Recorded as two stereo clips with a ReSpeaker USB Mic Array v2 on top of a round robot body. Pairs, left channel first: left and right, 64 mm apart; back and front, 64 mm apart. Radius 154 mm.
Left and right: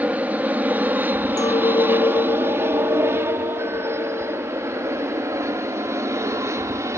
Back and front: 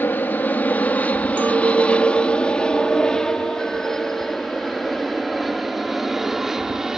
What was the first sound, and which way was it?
An aircraft, 140° right.